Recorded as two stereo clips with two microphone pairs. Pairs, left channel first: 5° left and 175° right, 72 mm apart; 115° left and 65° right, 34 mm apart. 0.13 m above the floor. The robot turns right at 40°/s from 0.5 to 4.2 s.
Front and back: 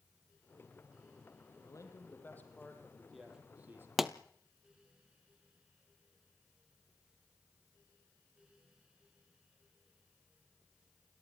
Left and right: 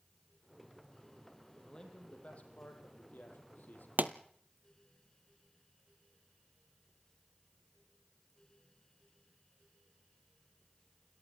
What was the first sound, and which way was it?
A man speaking, 40° left.